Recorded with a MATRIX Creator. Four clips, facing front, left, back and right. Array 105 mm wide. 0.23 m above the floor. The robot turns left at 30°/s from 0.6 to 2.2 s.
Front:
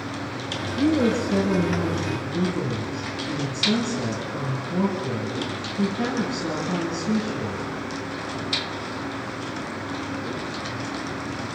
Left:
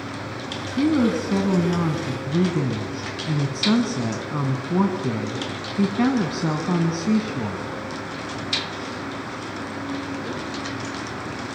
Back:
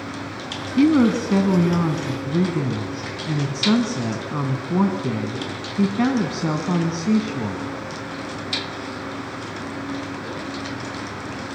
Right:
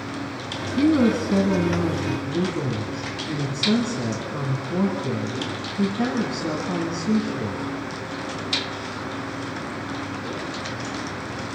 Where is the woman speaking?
175° right, 2 m; by 7.7 s 140° left, 2 m.